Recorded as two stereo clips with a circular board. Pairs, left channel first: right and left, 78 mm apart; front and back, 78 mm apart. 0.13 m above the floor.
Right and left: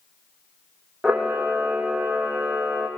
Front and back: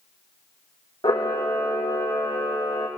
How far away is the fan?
I don't hear a fan.